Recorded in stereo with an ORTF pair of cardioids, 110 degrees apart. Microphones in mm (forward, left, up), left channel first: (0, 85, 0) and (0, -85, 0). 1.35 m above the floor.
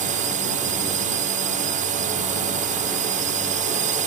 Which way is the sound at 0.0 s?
50° right.